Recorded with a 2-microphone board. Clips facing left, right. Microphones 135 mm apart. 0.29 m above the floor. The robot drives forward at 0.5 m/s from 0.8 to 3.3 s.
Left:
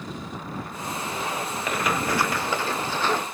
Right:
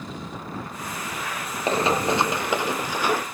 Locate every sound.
1.7 s running footsteps: 30° right (ahead or behind); by 3.2 s 10° right (ahead or behind)